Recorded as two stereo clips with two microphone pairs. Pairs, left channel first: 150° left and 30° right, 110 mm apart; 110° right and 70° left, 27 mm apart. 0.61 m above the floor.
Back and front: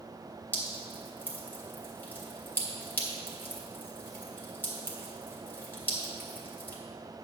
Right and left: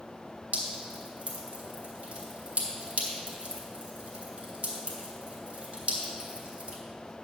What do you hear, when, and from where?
0.5 s dripping: 80° left, 2.0 m